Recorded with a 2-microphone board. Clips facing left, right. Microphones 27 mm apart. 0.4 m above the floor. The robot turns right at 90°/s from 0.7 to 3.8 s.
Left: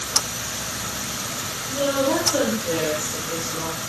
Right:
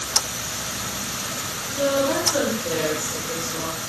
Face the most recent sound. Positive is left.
turn(degrees=-5)